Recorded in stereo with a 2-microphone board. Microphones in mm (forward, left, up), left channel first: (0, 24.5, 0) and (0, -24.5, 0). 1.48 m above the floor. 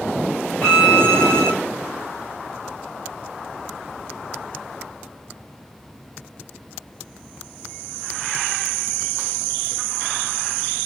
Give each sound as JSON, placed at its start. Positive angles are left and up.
{"t": 0.6, "sound": "a violin", "side_deg": 25, "distance_m": 1.6}